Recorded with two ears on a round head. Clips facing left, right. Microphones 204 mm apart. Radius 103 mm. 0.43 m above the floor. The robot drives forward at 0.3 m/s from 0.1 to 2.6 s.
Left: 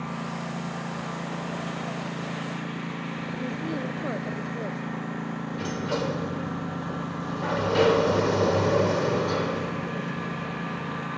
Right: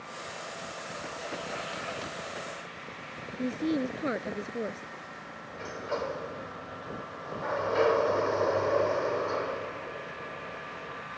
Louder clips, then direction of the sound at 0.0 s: Left 10 dB; 65° left (ahead or behind).